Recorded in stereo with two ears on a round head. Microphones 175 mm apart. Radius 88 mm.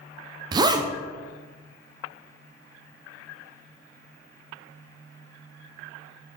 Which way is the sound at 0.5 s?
20° right (ahead or behind).